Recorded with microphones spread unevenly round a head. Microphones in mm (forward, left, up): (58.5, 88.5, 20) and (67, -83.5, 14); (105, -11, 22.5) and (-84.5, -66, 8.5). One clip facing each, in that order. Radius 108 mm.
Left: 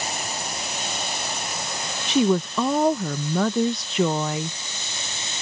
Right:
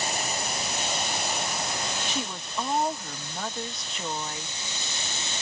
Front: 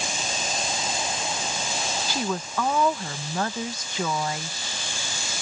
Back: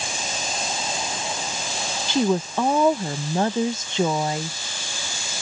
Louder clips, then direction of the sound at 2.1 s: Left 15 dB, back 11 dB; 130° left.